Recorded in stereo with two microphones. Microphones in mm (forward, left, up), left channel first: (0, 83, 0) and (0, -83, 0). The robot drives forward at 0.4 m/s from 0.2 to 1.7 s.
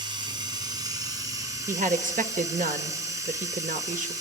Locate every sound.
0.0 s running water: 25° right (ahead or behind), 1.7 m; by 4.2 s 20° right (ahead or behind), 2 m
1.7 s a woman speaking: 55° right (ahead or behind), 1.1 m